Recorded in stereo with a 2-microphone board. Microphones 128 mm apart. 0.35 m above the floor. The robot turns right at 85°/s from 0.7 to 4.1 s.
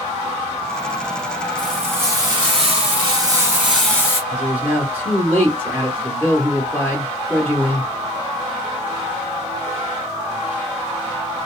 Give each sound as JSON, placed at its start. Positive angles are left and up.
{"t": 1.6, "sound": "frying", "azimuth_deg": 170, "distance_m": 1.8}
{"t": 4.3, "sound": "a man speaking", "side_deg": -15, "distance_m": 0.9}